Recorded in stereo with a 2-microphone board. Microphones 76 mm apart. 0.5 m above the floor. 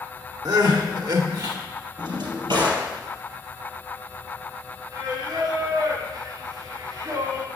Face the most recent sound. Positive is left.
turn(degrees=-55)  # may be behind; listen again after turning